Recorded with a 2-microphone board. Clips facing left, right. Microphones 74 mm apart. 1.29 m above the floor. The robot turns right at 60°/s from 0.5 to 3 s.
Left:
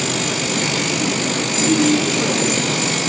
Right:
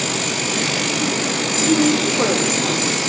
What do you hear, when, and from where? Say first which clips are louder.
1.6 s a woman speaking: even; 5° right (ahead or behind), 4.5 m; by 3.1 s 85° right, 4.5 m